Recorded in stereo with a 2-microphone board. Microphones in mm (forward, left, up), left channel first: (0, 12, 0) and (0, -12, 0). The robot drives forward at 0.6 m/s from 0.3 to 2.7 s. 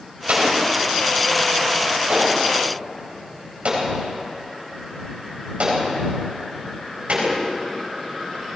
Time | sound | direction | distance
0.3 | an explosion | 80° right | 4 m